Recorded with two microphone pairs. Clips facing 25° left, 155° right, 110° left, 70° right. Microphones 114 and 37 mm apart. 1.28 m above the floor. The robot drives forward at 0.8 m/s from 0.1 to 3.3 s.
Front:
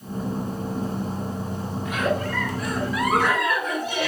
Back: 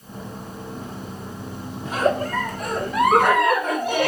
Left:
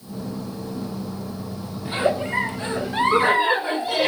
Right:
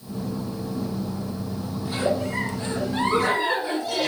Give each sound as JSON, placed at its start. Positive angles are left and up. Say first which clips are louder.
{"t": 1.9, "sound": "a giggle", "louder": "back 4 dB, left 3 dB", "azimuth_deg": 160, "distance_m": 1.0}